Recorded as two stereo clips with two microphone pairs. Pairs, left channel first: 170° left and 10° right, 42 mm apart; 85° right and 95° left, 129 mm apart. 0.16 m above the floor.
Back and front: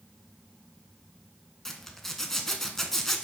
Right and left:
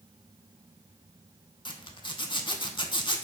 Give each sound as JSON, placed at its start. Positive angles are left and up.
{"t": 1.6, "sound": "a zipper", "azimuth_deg": -105, "distance_m": 0.5}